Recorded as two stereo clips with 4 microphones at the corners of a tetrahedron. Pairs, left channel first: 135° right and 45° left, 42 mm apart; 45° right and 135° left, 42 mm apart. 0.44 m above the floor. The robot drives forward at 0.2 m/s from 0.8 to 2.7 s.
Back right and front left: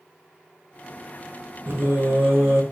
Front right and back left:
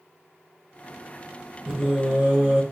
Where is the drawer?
I don't hear a drawer.